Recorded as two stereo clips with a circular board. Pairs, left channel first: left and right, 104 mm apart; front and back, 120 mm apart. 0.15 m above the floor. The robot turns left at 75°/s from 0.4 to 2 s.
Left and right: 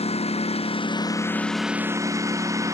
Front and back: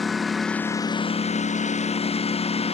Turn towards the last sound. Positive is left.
turn(degrees=-30)